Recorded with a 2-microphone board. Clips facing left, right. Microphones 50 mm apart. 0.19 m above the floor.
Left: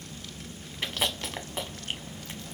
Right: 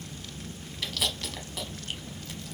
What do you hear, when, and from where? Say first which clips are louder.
0.8 s chewing: left 2 dB; 30° left (ahead or behind), 0.9 m